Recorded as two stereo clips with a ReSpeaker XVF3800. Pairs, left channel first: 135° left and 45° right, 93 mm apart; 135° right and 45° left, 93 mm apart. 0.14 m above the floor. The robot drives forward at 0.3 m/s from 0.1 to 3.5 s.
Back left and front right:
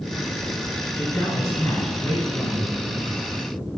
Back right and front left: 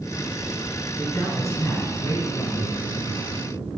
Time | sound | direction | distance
1.0 | a man speaking | straight behind | 1.5 m